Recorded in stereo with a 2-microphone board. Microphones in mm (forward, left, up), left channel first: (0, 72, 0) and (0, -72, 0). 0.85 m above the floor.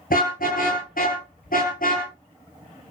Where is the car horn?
85° left, 7 m; by 2.1 s 80° left, 8.5 m.